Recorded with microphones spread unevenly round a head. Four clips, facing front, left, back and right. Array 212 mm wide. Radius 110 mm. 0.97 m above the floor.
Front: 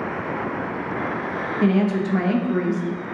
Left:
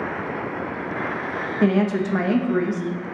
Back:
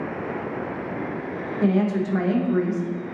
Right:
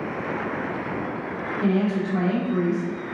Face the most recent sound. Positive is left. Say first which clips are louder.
# left 3 dB, front 1 dB
turn(degrees=65)